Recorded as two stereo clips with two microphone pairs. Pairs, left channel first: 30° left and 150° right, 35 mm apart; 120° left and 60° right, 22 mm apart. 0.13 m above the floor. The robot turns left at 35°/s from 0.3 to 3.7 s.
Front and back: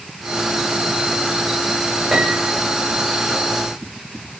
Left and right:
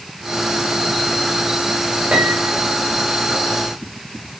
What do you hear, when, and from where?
2.1 s a piano: 75° right, 6 m; by 2.6 s 90° right, 6 m